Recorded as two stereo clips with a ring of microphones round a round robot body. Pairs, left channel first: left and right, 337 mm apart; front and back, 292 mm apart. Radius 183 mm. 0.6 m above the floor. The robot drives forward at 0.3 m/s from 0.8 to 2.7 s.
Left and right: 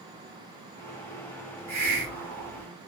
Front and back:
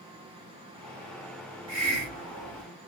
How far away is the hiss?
About 1.5 m.